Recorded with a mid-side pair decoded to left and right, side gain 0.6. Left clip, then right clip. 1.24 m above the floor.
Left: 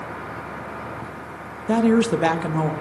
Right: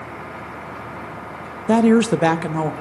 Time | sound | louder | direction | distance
1.7 | a woman speaking | right 3 dB | 30° right | 0.7 m